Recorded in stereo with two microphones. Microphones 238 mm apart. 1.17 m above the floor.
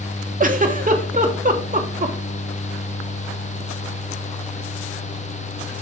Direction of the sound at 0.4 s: 35° right (ahead or behind).